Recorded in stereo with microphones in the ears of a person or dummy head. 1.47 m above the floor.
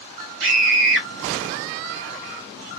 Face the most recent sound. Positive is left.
turn(degrees=-75)  # may be behind; listen again after turning